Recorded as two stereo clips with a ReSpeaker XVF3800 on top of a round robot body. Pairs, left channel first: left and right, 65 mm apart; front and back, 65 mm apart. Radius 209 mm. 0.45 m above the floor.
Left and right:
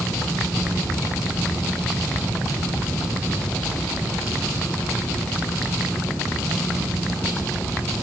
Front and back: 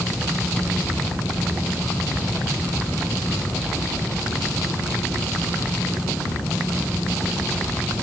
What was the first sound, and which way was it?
Only background noise.